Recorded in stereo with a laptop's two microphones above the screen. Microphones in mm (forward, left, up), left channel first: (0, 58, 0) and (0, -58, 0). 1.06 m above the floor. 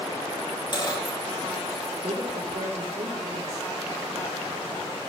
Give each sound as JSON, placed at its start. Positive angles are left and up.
{"t": 0.7, "sound": "a dropped coin", "side_deg": 40, "distance_m": 9.0}
{"t": 2.0, "sound": "a woman speaking", "side_deg": -70, "distance_m": 4.0}